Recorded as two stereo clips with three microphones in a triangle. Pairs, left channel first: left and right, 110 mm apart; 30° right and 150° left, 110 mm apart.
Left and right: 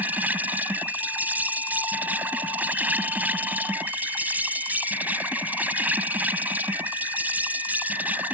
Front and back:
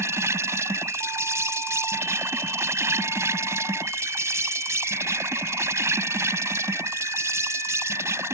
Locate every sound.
0.0 s an insect: 155° right